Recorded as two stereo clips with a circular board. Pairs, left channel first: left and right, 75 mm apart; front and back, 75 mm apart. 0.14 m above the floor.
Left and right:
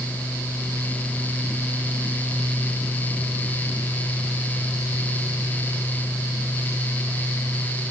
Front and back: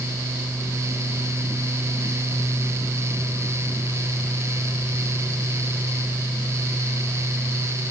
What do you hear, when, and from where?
Only background noise.